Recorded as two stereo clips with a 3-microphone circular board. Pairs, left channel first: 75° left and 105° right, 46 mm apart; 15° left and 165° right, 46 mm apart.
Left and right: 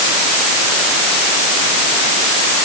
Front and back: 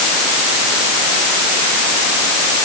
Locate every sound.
Only background noise.